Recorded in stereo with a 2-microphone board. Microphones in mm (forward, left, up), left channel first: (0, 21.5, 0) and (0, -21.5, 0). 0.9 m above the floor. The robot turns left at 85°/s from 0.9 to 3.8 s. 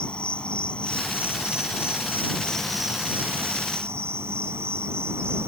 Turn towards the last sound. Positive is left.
turn(degrees=-90)